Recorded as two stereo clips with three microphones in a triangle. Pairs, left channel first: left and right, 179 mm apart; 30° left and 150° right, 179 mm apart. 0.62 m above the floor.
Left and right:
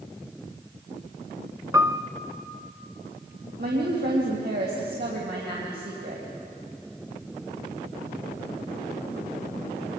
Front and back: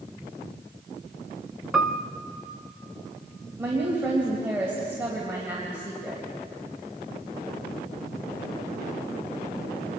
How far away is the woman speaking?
About 3 m.